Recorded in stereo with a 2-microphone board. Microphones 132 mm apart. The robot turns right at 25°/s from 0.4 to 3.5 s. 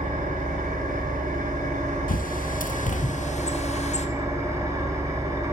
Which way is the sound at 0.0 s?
100° right.